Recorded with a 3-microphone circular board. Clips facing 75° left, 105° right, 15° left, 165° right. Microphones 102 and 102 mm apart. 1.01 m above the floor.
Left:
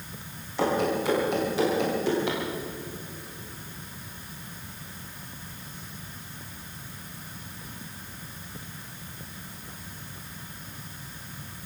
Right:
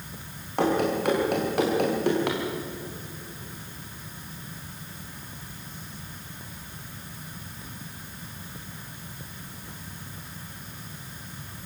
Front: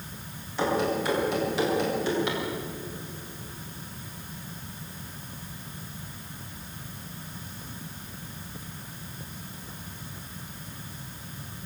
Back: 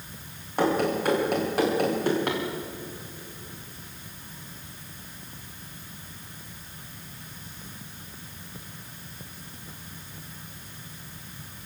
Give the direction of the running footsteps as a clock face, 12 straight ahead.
4 o'clock.